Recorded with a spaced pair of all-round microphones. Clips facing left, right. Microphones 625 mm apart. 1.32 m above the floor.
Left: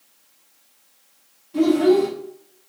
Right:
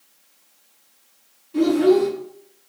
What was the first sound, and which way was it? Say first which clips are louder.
A child speaking: even; 20° left (ahead or behind).